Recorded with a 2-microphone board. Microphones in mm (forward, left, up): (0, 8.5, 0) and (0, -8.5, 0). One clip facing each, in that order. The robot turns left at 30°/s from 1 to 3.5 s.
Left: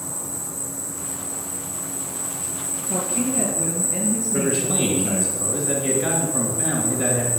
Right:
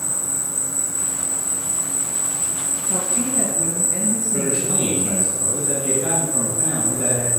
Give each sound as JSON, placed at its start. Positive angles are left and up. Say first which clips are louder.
{"t": 0.0, "sound": "an insect", "louder": "right 5 dB", "azimuth_deg": -70, "distance_m": 1.7}
{"t": 2.9, "sound": "a woman speaking", "louder": "left 1 dB", "side_deg": 5, "distance_m": 5.5}
{"t": 4.3, "sound": "a man speaking", "louder": "even", "side_deg": 20, "distance_m": 2.5}